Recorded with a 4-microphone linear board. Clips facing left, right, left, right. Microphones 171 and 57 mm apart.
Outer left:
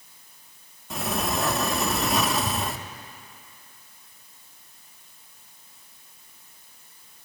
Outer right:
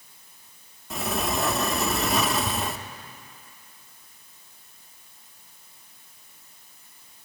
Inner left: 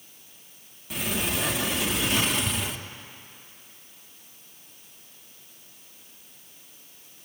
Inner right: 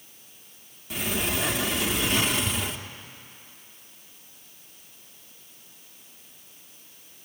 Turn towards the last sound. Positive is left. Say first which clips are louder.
# even, inner right 1 dB
turn(degrees=0)  # may be behind; listen again after turning